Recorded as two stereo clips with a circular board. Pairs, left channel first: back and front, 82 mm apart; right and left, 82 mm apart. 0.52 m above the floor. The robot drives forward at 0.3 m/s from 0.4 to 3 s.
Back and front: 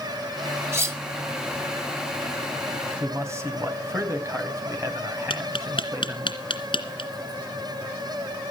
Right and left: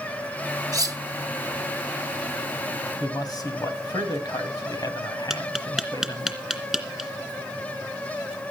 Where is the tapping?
Straight behind, 2.5 m.